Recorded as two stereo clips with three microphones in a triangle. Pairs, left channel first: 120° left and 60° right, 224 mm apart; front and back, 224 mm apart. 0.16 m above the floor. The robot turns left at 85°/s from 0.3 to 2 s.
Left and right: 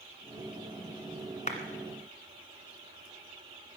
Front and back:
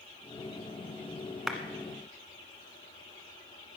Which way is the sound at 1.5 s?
90° left.